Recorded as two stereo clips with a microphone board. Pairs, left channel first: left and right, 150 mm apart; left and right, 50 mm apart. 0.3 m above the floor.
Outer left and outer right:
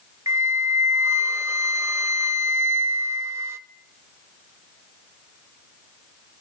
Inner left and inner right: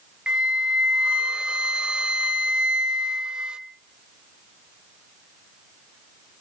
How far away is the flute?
About 0.6 m.